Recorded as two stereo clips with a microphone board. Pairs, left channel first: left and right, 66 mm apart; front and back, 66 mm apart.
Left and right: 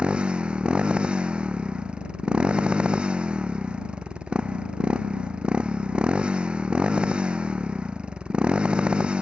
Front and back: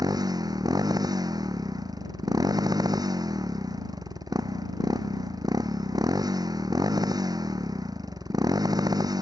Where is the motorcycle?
165° right.